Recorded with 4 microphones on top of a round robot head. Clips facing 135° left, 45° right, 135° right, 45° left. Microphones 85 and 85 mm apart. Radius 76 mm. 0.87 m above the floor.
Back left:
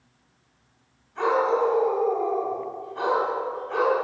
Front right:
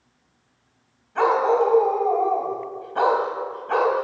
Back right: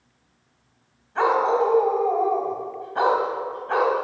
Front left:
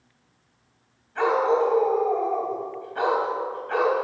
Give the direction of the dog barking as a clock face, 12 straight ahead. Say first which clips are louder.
Front right 3 dB, back right 1 dB; 2 o'clock.